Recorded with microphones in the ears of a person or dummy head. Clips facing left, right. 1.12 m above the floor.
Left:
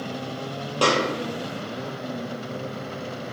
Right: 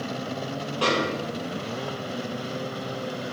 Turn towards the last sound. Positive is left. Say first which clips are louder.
# left 3 dB
turn(degrees=60)  # may be behind; listen again after turning